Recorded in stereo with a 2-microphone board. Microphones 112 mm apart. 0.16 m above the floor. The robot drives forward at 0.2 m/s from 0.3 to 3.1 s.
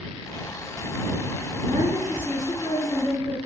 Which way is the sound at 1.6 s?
25° left (ahead or behind).